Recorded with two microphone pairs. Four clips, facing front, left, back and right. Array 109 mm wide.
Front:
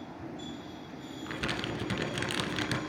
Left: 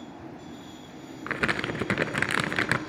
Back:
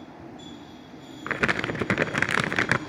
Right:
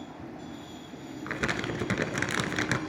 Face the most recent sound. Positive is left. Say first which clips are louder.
# left 3 dB, back 9 dB
turn(degrees=165)